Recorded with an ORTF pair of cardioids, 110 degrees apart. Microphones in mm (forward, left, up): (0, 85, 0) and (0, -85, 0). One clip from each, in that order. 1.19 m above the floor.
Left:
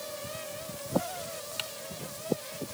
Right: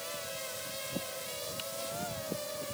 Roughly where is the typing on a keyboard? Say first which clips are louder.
Left 4 dB; ahead left.